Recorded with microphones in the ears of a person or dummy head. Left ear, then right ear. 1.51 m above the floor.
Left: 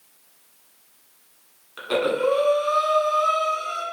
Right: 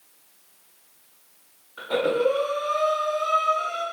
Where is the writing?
No writing in this recording.